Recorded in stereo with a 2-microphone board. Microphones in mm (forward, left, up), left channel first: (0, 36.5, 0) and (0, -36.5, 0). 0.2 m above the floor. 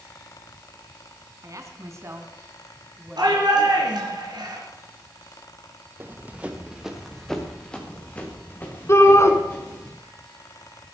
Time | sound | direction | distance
1.4 | a woman speaking | 45° right (ahead or behind) | 2.5 m
3.2 | a shout | 70° right (ahead or behind) | 4 m
6.0 | running footsteps | 30° right (ahead or behind) | 2.5 m
8.9 | a shout | 35° left (ahead or behind) | 2.0 m